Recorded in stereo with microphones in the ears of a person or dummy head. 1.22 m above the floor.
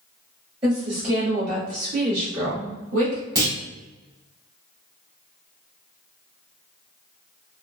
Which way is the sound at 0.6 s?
30° right (ahead or behind).